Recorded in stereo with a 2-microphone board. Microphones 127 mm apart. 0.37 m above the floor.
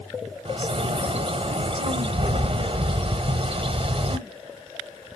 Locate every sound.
0.5 s a bird: 45° right (ahead or behind), 0.7 m